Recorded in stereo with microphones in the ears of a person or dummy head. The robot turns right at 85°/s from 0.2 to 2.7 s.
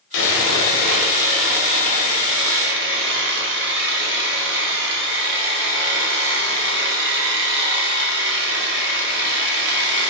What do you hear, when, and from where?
0.1 s sawing: 70° left, 1.1 m; by 10.1 s 75° right, 1.1 m